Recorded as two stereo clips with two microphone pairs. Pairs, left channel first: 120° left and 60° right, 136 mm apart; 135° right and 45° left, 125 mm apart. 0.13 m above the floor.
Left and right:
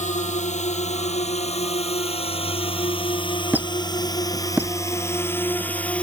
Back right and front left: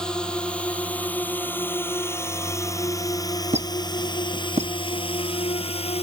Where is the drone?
140° left; by 6.0 s 160° right.